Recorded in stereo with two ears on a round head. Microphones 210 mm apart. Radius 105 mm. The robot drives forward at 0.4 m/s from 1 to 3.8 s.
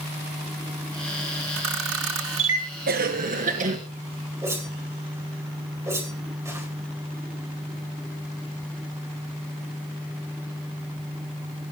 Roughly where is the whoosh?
Centre.